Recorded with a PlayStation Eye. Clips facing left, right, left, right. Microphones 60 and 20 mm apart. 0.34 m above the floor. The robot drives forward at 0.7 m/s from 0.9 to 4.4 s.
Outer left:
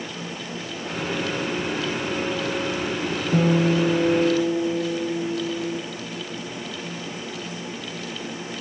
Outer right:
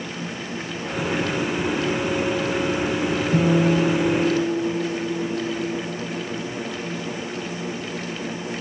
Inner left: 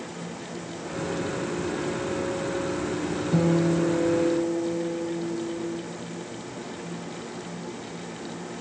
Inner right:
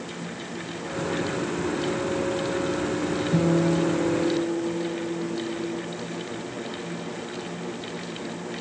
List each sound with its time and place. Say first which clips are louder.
3.3 s a guitar: even, even; 30° left (ahead or behind), 4.5 m